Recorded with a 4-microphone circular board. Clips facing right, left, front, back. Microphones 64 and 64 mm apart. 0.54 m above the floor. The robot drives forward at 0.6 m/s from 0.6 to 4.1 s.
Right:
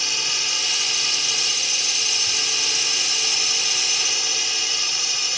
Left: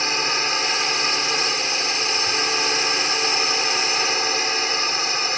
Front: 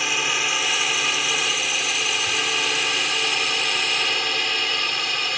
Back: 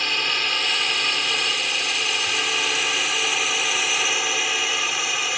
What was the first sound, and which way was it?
A drone, 80° left.